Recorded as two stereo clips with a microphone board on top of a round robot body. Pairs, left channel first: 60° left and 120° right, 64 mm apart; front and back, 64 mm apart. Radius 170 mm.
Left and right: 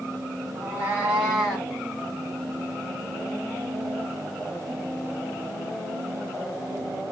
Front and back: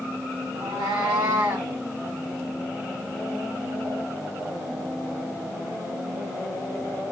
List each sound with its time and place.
0.6 s a cat meowing: 165° right, 1.1 m; by 1.7 s 150° left, 1.5 m